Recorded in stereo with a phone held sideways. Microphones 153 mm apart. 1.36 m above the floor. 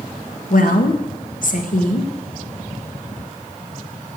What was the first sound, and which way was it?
A woman speaking, 70° left (ahead or behind).